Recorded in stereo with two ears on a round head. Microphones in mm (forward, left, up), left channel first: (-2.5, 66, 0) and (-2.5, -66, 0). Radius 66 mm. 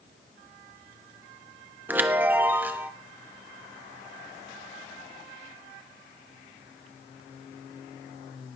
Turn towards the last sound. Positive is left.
turn(degrees=-10)  # may be behind; listen again after turning